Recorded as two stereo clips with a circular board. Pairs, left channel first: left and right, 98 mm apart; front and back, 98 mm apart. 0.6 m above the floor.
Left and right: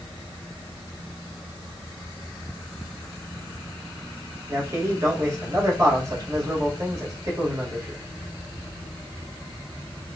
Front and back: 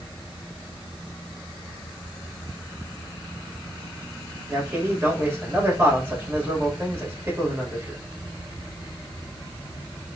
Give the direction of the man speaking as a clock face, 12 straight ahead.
4 o'clock.